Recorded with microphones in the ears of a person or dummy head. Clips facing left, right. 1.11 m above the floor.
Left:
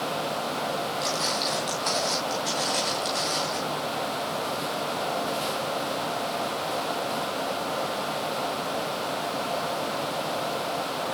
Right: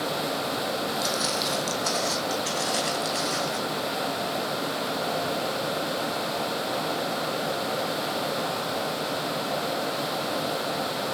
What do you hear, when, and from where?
1.0 s footsteps: 15° right (ahead or behind), 2 m; by 3.6 s centre (ahead or behind), 3.5 m